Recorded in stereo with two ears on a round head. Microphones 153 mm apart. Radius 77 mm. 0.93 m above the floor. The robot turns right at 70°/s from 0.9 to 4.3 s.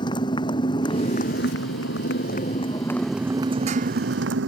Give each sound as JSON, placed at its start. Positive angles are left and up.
{"t": 0.0, "sound": "a motorcycle", "azimuth_deg": 25}